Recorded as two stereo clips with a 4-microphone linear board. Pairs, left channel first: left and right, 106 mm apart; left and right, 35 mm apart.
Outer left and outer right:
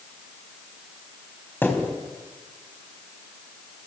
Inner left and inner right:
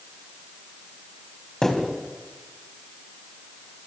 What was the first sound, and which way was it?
A thud, 20° left (ahead or behind).